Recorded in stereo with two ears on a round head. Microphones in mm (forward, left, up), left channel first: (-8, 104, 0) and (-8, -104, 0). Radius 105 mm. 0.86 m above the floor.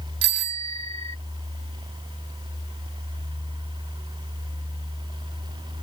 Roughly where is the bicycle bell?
Right.